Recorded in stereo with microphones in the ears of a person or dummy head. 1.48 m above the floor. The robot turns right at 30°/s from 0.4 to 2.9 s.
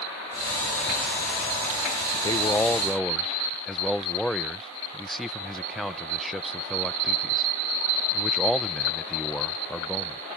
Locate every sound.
2.1 s a man speaking: 25° left (ahead or behind); by 10.2 s 5° left (ahead or behind)